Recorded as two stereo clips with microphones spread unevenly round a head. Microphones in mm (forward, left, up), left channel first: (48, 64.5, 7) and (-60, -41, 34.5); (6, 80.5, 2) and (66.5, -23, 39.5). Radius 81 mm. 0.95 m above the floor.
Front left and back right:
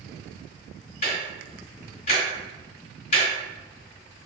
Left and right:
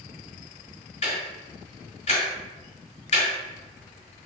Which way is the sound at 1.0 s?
85° left.